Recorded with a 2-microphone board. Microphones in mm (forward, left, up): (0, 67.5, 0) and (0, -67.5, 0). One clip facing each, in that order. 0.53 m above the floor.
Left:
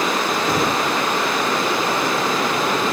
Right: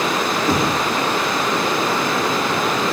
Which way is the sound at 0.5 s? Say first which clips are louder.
Right 2 dB; centre (ahead or behind).